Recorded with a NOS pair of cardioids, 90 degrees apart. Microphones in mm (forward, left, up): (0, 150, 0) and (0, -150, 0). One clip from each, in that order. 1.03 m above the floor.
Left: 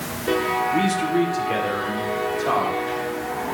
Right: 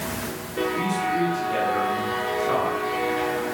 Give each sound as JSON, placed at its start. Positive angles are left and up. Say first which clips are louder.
{"t": 0.7, "sound": "a man speaking", "louder": "left 3 dB", "azimuth_deg": 70, "distance_m": 1.9}